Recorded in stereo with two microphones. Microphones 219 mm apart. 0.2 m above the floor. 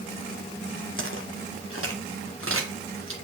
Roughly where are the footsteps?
Right.